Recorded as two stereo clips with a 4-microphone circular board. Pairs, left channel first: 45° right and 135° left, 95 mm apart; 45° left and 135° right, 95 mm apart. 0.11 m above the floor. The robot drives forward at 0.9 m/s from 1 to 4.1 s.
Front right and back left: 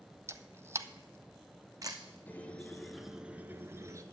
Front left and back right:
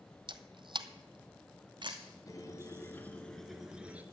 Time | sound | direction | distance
0.3 | a camera shutter | 165° right | 0.6 m
2.3 | a squeak | 15° left | 1.3 m